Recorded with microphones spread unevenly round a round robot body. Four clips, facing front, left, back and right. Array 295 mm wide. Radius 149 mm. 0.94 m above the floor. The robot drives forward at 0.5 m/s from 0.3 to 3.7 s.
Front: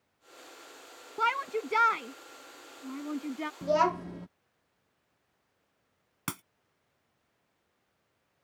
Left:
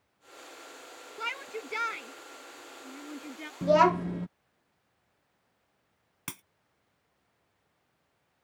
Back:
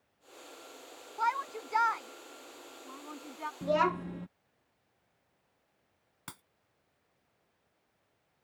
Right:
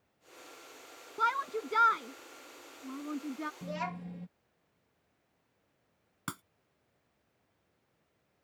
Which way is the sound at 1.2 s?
20° right.